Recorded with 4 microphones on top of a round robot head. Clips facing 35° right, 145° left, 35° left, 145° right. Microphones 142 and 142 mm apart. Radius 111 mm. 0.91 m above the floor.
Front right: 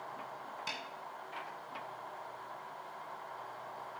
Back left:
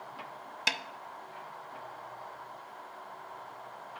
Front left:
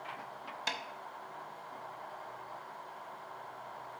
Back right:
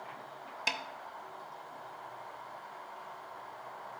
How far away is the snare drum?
About 0.5 m.